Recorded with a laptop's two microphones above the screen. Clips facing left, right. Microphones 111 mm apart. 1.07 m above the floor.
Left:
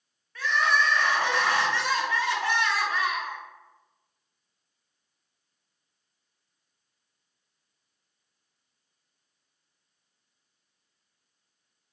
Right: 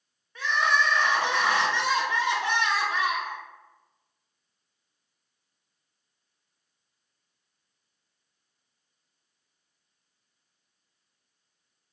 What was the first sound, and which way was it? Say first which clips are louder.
Crying: even; 20° right (ahead or behind).